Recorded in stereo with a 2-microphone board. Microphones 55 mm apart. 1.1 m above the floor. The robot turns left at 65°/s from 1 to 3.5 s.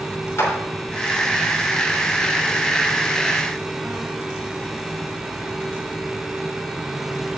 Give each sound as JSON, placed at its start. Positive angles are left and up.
{"t": 0.4, "sound": "a clap", "side_deg": 55, "distance_m": 3.0}